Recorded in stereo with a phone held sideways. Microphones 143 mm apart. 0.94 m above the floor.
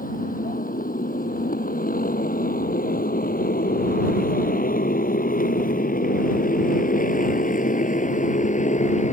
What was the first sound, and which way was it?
A motorcycle, 75° left (ahead or behind).